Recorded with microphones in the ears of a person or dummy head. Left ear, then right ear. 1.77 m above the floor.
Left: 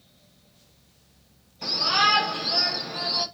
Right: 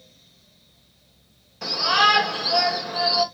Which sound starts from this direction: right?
A shout, at 1.6 s.